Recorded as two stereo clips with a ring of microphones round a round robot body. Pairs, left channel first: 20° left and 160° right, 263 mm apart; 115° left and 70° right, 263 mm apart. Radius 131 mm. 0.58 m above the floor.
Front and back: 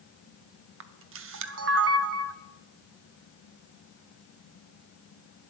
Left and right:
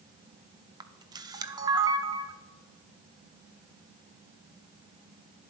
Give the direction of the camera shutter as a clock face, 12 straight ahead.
5 o'clock.